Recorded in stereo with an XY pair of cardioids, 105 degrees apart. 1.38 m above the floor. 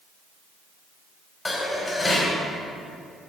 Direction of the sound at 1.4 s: 20° left.